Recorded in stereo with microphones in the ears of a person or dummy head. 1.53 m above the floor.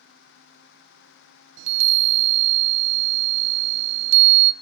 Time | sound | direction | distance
1.6 | a chime | 80° right | 0.6 m